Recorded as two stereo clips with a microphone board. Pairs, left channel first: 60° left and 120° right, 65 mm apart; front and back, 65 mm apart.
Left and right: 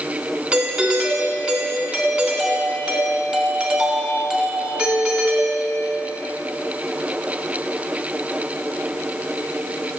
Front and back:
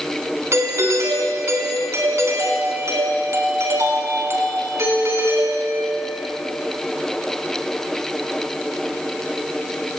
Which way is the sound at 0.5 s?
175° left.